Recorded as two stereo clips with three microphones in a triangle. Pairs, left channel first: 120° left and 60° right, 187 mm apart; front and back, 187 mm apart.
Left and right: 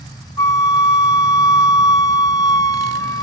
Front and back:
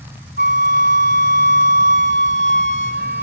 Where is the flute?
170° right, 1.0 m.